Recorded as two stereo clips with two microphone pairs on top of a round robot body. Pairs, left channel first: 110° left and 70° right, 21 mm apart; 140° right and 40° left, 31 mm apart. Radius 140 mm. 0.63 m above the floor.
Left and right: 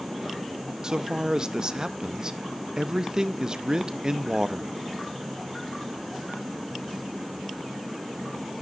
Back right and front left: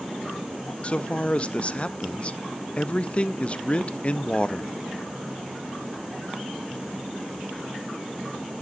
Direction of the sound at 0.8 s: 125° right.